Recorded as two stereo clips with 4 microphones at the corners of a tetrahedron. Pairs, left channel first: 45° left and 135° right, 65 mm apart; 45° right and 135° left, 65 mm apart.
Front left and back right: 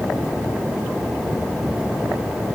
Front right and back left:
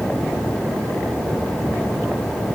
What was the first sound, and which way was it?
Only background noise.